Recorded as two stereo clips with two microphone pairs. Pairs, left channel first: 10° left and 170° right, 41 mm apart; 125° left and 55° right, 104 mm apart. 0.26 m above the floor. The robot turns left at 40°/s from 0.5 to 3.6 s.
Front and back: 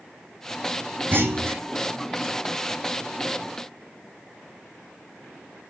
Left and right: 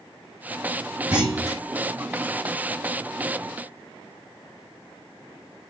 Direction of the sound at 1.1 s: 135° right.